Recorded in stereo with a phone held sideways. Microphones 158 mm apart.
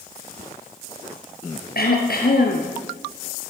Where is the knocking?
I don't hear knocking.